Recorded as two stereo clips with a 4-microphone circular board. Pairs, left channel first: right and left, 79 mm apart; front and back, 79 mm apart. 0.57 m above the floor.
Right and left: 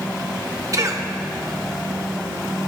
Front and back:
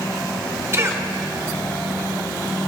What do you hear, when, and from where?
0.7 s a cough: 125° left, 1.4 m